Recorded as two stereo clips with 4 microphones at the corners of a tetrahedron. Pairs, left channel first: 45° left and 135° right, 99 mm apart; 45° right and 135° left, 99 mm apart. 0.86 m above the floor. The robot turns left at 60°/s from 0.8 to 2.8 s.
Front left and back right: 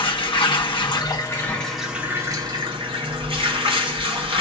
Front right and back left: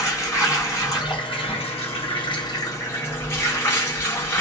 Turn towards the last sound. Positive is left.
turn(degrees=-110)